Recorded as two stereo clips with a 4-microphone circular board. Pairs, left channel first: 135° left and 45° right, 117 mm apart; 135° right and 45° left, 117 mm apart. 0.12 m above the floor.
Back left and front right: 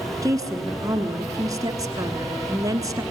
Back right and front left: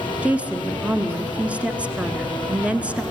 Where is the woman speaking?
25° right, 1.2 m.